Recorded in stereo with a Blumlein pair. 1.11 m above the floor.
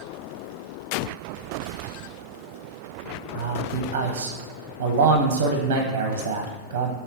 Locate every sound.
3.3 s a man speaking: 55° right, 0.5 m